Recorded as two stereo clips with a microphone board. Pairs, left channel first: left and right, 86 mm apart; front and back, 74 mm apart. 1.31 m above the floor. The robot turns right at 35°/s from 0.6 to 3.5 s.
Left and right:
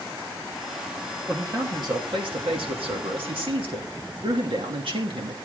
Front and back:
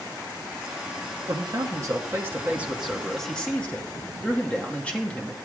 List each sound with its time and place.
1.3 s a man speaking: 150° right, 2.5 m; by 5.3 s 70° right, 2.5 m